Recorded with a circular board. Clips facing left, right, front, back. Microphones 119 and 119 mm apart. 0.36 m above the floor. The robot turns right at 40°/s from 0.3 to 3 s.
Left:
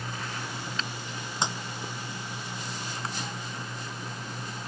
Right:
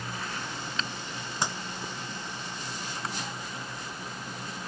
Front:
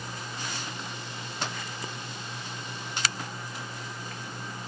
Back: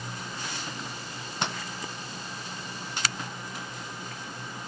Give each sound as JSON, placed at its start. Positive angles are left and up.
{"t": 1.4, "sound": "breaking glass", "azimuth_deg": 155}